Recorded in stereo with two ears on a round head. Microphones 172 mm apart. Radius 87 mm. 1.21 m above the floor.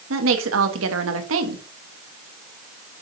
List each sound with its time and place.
0.1 s a woman speaking: 85° right, 1.6 m